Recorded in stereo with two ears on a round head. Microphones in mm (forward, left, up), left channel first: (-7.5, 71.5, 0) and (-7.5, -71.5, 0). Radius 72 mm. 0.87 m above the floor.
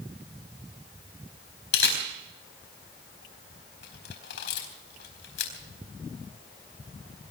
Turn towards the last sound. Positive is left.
turn(degrees=70)  # may be behind; listen again after turning